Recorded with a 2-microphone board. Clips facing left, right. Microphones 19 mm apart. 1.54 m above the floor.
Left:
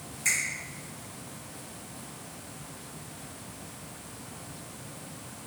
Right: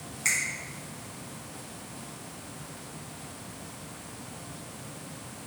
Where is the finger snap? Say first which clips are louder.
Even; 25° right (ahead or behind), 1.5 m.